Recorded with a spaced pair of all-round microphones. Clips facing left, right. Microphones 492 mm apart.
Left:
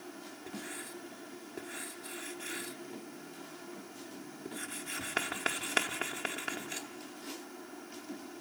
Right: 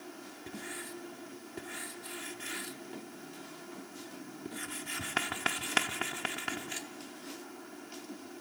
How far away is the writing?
About 0.7 m.